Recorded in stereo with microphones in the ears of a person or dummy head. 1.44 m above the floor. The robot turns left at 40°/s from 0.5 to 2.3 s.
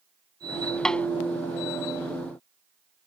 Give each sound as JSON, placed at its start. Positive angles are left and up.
{"t": 0.8, "sound": "a snare drum", "side_deg": 5}